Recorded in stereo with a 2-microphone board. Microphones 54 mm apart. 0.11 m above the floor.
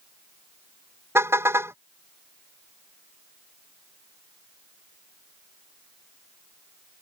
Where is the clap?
I don't hear a clap.